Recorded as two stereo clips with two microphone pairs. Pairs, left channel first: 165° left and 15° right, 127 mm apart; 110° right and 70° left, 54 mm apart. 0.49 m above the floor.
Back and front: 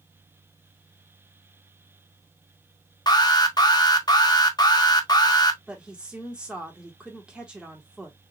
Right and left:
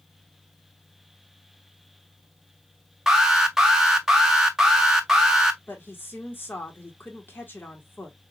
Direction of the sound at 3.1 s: 145° left.